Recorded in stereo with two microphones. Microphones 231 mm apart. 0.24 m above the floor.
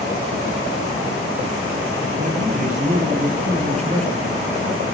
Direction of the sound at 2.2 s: 35° right (ahead or behind).